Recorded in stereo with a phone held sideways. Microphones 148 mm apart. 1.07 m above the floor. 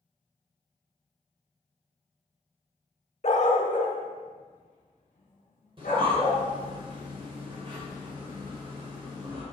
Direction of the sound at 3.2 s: 50° left (ahead or behind).